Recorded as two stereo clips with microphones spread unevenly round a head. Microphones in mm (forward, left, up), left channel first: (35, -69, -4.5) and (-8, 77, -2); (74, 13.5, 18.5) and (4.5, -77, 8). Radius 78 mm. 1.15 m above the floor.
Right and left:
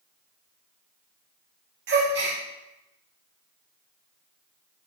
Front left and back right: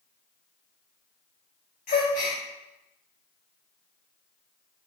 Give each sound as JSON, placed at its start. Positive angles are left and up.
{"t": 1.9, "sound": "a gasp", "azimuth_deg": 95, "distance_m": 0.6}